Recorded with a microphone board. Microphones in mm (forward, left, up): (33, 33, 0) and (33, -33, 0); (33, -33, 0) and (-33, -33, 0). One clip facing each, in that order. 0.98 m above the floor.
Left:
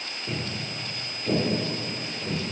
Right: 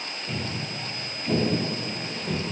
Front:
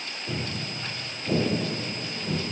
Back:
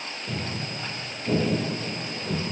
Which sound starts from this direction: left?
Footsteps, at 0.3 s.